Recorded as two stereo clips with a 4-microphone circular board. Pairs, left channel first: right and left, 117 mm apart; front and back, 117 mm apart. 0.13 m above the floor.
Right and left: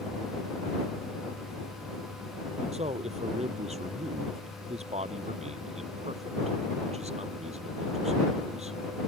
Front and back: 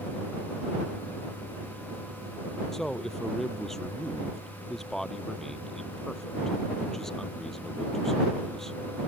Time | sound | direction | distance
2.7 | a man speaking | 85° left | ?